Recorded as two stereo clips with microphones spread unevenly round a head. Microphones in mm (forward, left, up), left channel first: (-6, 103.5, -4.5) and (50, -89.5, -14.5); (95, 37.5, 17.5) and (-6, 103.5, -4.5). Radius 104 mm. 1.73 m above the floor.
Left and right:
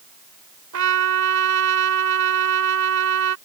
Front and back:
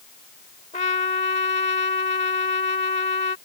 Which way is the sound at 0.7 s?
80° right.